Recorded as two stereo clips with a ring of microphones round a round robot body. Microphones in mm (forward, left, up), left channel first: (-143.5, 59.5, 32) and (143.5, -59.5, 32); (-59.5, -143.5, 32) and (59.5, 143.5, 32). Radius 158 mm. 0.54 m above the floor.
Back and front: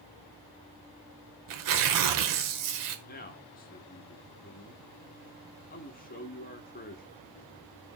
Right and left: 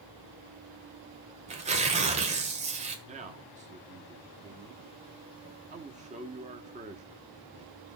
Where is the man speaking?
120° left, 1.2 m.